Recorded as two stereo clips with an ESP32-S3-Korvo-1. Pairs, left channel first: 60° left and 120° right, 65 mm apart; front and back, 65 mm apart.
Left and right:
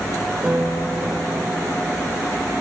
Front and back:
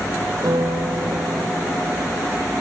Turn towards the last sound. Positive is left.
turn(degrees=165)